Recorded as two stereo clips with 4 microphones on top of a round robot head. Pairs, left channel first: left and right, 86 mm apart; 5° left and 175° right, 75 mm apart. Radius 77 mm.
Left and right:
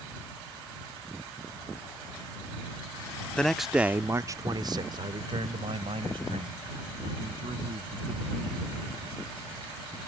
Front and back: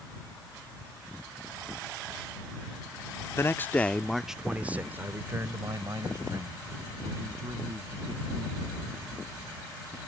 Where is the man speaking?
15° left; by 8.7 s 125° right.